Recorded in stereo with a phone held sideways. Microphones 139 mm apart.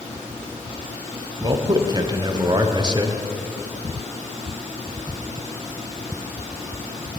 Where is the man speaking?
30° right (ahead or behind), 0.6 m.